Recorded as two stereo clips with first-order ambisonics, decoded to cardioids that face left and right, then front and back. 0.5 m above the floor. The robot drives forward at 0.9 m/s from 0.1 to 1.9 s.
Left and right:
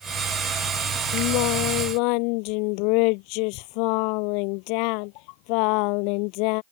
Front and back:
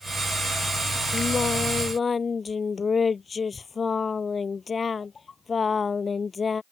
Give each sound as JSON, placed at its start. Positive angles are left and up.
{"t": 1.1, "sound": "singing", "azimuth_deg": 70}